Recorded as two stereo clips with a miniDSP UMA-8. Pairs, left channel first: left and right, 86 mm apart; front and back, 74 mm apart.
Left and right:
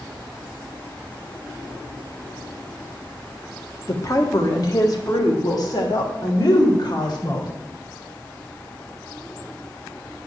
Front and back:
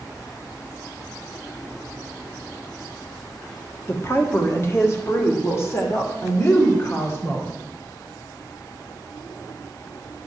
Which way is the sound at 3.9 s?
45° left.